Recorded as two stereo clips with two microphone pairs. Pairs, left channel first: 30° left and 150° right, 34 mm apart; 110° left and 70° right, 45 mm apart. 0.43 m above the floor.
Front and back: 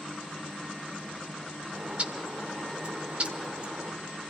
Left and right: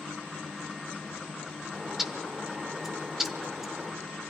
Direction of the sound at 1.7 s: 145° right.